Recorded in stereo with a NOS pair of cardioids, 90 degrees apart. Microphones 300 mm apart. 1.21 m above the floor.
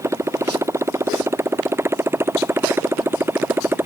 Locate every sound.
0.0 s a motorcycle: 10° right; by 3.9 s 5° right